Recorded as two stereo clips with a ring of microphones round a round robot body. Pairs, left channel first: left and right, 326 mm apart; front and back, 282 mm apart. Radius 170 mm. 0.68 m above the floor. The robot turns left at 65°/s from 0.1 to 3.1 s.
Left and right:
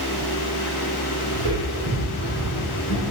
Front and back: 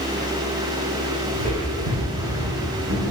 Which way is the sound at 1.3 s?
100° right.